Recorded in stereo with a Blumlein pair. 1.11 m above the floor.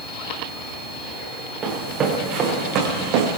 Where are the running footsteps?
25° right, 5 m; by 3.4 s 45° right, 3 m.